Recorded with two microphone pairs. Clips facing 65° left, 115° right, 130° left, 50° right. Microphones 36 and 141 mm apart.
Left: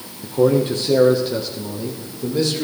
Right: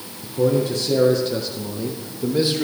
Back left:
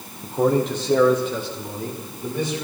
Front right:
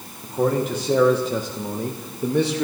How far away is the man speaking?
About 1.2 m.